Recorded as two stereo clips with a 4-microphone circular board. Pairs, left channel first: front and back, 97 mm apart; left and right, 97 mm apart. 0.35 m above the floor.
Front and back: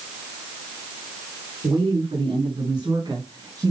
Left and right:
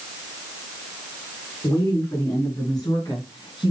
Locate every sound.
1.6 s a woman speaking: 145° left, 5 m; by 3.7 s 125° left, 3.5 m